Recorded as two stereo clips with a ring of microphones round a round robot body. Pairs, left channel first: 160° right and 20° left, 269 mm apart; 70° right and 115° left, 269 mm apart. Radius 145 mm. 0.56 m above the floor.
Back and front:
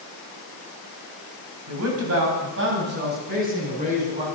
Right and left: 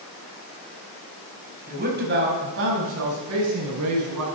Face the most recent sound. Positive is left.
turn(degrees=90)